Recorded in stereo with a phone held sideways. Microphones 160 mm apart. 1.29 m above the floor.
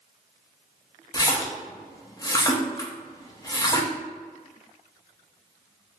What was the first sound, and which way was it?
A splash, 25° left (ahead or behind).